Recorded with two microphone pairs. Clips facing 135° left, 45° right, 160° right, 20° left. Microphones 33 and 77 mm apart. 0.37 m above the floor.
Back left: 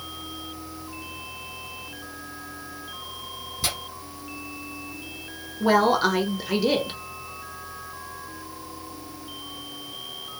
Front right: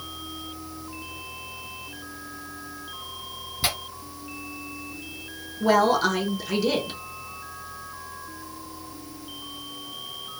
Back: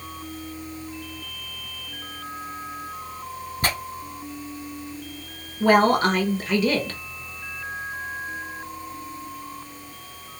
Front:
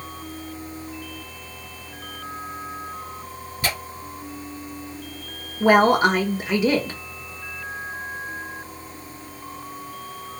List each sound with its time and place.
3.6 s tearing paper: 115° right, 0.9 m
5.6 s a woman speaking: 75° left, 0.8 m